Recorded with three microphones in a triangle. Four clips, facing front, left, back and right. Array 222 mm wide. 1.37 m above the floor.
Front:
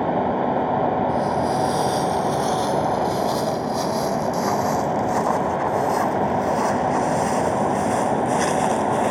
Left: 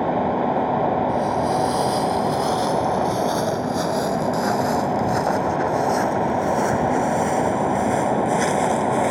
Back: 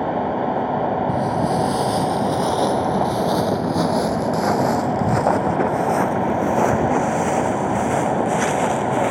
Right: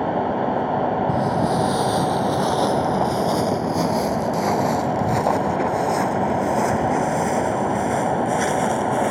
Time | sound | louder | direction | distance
1.1 | footsteps | even, back 1 dB | 135° right | ?